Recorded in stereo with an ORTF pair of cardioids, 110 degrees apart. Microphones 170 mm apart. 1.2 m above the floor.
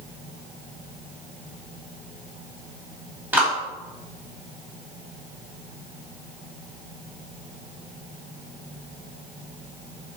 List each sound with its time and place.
3.3 s a clap: 10° right, 1.9 m